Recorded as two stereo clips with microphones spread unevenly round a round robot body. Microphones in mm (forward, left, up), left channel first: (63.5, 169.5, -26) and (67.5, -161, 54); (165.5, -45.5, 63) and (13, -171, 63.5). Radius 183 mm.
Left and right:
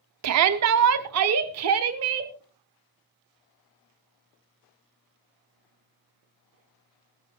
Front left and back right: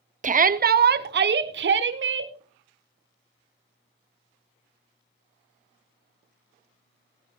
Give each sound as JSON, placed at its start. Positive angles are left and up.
{"t": 0.2, "sound": "a shout", "azimuth_deg": -125, "distance_m": 0.8}